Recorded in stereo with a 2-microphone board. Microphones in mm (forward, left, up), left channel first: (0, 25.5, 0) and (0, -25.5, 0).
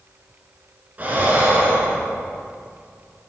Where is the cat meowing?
No cat meowing in this recording.